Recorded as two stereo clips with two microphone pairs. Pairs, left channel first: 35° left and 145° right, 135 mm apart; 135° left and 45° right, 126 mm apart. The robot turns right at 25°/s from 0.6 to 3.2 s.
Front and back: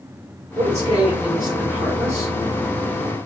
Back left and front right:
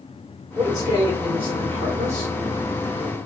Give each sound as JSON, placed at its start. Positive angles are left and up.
{"t": 0.6, "sound": "a man speaking", "azimuth_deg": -105, "distance_m": 1.6}